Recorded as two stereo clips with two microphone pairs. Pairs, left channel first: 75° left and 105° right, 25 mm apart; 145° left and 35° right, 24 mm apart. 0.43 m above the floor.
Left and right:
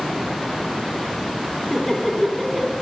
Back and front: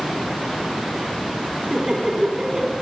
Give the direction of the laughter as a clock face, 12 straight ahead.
12 o'clock.